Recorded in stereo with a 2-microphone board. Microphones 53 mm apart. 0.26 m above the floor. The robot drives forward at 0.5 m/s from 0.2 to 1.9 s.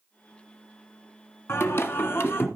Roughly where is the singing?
Left.